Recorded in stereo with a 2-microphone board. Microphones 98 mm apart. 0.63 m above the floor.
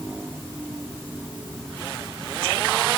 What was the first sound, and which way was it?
Only background noise.